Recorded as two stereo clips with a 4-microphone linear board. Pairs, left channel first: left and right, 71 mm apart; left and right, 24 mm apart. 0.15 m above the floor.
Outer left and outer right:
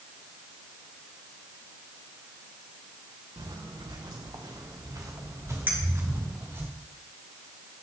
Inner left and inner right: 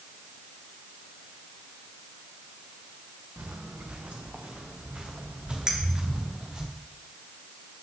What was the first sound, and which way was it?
Footsteps, 80° right.